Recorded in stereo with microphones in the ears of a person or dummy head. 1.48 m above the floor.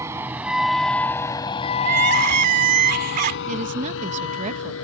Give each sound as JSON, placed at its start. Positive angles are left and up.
{"t": 0.0, "sound": "a vehicle", "side_deg": -15}
{"t": 1.8, "sound": "crying", "side_deg": -50}
{"t": 3.5, "sound": "a woman speaking", "side_deg": -40}